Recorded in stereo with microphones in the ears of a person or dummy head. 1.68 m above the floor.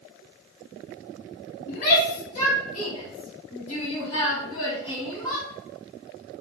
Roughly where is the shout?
Left.